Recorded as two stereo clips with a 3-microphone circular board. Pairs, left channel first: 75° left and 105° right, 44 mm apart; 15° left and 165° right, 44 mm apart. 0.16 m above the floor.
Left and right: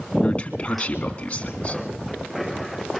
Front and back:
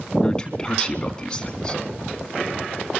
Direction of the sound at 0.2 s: 65° left.